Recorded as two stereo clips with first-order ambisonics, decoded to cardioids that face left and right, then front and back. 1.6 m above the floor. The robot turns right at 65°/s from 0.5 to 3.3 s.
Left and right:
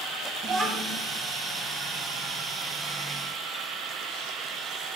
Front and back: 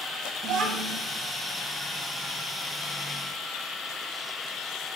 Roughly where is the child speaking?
Behind right.